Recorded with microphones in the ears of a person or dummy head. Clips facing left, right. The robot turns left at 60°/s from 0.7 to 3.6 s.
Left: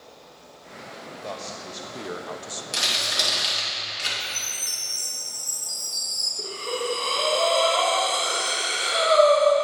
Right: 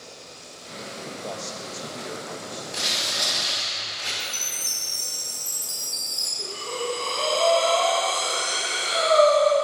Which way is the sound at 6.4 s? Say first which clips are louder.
Left 2 dB; 30° left (ahead or behind).